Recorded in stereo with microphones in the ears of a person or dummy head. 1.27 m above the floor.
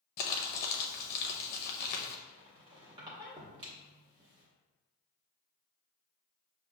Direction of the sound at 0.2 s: 50° left (ahead or behind).